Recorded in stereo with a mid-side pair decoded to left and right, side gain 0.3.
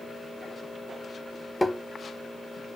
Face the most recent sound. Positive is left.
turn(degrees=5)